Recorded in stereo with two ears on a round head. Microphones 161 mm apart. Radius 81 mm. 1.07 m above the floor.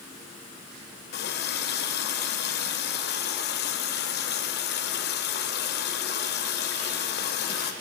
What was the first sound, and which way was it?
A running tap, 65° left (ahead or behind).